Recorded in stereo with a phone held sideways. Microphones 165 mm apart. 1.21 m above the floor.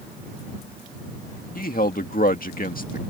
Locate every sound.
1.6 s a man speaking: 60° left (ahead or behind)